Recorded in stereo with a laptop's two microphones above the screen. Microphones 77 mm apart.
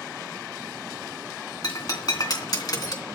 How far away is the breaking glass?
About 2.5 m.